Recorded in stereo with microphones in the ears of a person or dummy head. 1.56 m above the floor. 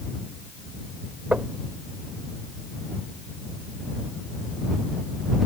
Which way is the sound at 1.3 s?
10° right (ahead or behind).